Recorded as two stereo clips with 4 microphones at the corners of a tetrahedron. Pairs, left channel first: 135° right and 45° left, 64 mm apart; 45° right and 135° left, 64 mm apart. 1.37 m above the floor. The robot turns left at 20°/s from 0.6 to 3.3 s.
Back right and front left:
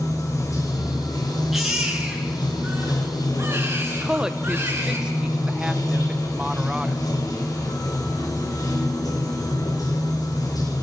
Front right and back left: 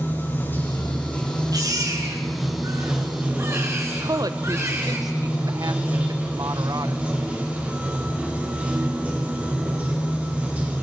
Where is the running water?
100° right, 5.5 m; by 10.8 s 155° right, 5.5 m.